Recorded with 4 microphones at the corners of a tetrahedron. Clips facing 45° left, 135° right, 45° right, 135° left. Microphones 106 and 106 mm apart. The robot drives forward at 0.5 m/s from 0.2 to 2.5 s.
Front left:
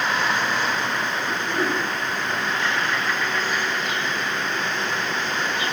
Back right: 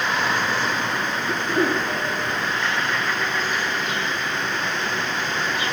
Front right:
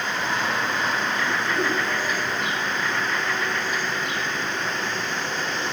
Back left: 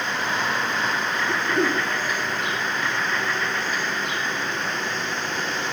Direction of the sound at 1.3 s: 175° left.